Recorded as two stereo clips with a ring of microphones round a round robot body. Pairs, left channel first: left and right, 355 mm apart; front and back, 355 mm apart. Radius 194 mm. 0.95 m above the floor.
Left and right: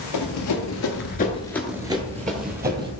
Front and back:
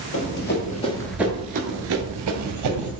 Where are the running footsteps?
55° left, 1.7 m; by 2.9 s 150° right, 2.0 m.